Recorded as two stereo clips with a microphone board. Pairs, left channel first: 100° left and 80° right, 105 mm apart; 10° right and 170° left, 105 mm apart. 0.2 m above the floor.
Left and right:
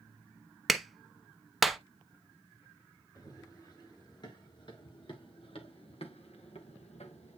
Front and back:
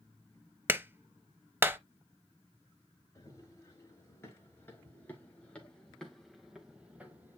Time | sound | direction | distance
0.7 | a clap | 165° right | 0.8 m
3.1 | running footsteps | 50° left | 3.5 m